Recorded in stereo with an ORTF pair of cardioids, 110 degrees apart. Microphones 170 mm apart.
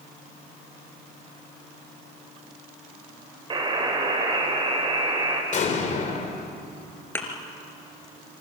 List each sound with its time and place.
3.5 s a buzzer: 30° right, 5 m
5.5 s an explosion: 45° left, 3.5 m
7.2 s a thud: 15° left, 3.5 m